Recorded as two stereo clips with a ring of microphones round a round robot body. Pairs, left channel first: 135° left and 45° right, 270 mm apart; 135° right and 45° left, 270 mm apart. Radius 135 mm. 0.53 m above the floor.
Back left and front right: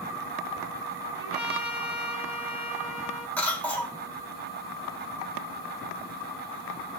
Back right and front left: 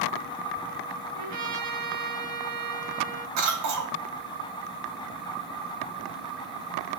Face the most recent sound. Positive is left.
turn(degrees=50)